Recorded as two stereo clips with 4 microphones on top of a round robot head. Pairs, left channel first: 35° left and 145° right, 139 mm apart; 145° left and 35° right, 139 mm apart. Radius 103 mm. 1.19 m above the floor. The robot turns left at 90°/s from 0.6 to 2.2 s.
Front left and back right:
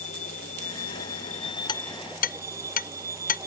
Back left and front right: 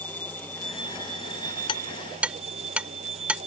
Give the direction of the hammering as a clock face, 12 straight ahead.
9 o'clock.